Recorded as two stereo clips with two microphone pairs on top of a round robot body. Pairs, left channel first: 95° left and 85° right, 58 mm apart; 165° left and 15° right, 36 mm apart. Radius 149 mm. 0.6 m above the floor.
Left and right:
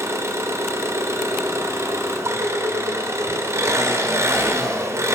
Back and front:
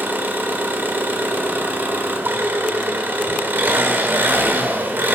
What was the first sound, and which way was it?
An engine running, 45° right.